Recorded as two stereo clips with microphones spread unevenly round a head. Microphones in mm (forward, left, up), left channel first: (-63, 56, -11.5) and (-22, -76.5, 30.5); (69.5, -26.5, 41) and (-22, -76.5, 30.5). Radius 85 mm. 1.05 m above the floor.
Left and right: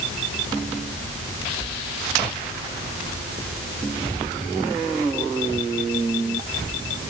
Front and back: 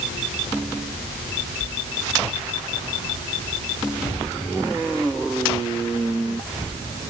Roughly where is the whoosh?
I don't hear a whoosh.